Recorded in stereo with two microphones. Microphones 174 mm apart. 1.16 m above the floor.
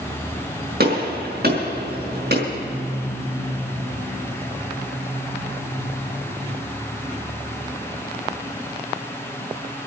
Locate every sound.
0.8 s a gunshot: 65° right (ahead or behind), 5 m